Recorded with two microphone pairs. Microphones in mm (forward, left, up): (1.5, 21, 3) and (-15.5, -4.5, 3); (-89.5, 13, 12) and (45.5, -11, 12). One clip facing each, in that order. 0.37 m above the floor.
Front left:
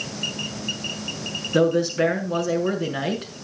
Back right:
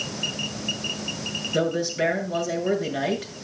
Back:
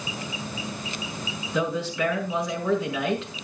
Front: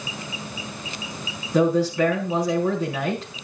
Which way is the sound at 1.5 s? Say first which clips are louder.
Front left 5 dB, front 8 dB; 40° left.